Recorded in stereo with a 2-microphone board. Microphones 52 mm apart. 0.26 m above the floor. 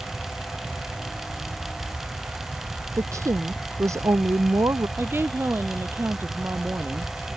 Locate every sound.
3.0 s a woman speaking: 80° right
5.0 s a woman speaking: 50° right (ahead or behind)